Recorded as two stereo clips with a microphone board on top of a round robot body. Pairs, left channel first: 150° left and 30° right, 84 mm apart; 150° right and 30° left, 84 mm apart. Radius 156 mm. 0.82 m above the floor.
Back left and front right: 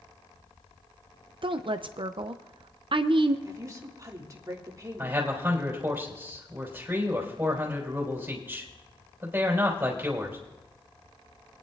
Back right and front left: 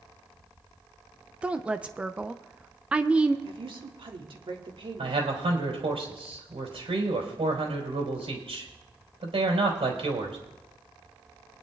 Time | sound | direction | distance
1.4 | a woman speaking | 45° right | 0.5 m
3.5 | a woman speaking | 20° left | 1.6 m
5.0 | a man speaking | 40° left | 3.5 m